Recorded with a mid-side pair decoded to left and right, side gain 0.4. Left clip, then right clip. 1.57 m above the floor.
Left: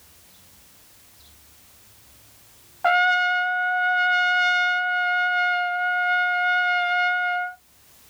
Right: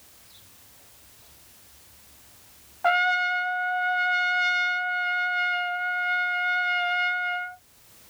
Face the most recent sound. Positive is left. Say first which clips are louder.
# left 3 dB
turn(degrees=20)